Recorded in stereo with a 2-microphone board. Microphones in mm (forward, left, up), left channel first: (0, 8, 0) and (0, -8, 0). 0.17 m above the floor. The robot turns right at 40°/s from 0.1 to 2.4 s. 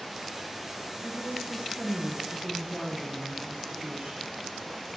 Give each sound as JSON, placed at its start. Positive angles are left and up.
{"t": 1.0, "sound": "a woman speaking", "azimuth_deg": -135, "distance_m": 4.0}